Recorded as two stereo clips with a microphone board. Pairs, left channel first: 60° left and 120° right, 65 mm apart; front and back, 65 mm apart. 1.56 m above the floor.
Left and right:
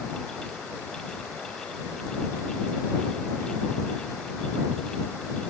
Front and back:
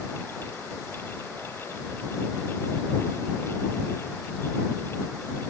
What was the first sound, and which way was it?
Only background noise.